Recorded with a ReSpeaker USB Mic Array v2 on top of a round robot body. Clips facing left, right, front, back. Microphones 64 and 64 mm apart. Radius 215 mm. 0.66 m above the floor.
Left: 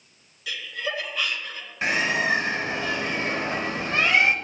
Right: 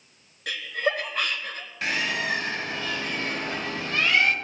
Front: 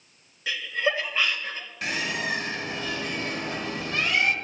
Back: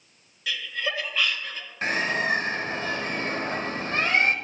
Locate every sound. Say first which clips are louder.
0.5 s laughter: right 4 dB, front 4 dB; 60° right, 1.8 m
1.8 s a bird: left 4 dB, back 4 dB; 155° left, 1.3 m